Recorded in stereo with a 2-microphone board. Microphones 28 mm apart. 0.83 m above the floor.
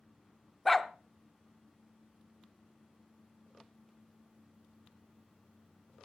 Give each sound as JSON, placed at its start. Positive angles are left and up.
{"t": 0.7, "sound": "a dog barking", "side_deg": 5, "distance_m": 0.5}